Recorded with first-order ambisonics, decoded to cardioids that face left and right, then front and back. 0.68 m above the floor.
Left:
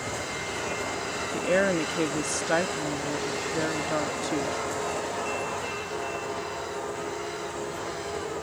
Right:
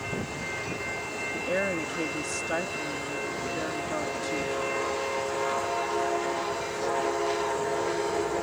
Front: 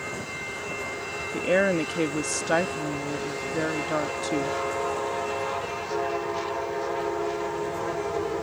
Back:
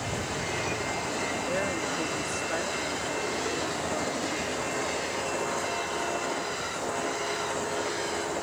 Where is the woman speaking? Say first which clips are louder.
Left 5 dB, front 6 dB; 30° left.